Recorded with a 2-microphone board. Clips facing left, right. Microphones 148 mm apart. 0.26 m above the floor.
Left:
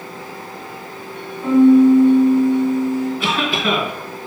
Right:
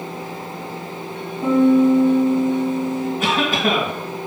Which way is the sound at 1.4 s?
70° right (ahead or behind).